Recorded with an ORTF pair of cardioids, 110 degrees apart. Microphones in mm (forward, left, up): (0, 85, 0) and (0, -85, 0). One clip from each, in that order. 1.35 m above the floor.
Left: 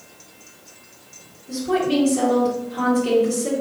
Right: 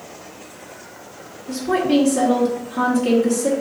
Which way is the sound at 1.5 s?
50° right.